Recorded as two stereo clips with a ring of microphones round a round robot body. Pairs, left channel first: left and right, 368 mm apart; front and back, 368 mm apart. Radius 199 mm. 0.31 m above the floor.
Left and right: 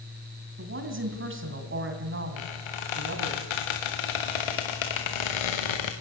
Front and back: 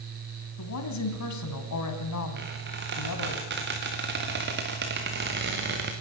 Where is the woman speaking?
35° right, 3 m.